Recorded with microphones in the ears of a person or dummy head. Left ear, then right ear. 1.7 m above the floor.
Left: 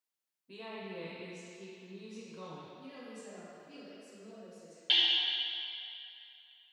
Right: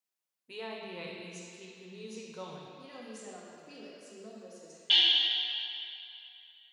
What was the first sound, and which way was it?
A woman speaking, 25° right (ahead or behind).